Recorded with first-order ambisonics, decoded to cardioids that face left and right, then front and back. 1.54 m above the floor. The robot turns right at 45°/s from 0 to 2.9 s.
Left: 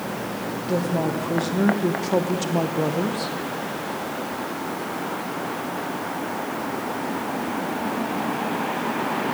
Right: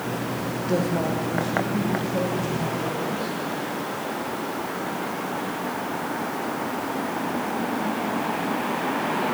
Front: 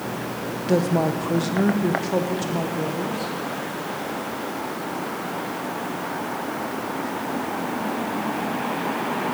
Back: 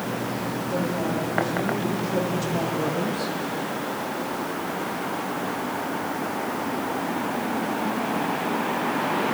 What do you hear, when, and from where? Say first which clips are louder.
0.7 s a woman speaking: left 1 dB, front 7 dB; straight ahead, 0.9 m; by 3.3 s 100° left, 0.9 m